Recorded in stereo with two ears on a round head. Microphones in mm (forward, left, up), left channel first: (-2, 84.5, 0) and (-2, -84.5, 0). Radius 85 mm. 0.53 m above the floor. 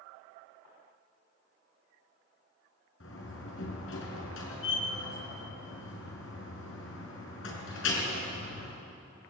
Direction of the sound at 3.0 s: 75° left (ahead or behind).